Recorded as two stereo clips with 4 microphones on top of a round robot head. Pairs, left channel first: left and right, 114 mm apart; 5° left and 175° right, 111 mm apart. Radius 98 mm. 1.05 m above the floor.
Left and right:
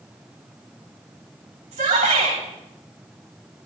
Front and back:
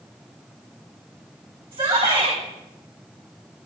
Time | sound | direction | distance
1.7 | a shout | 125° right | 9 m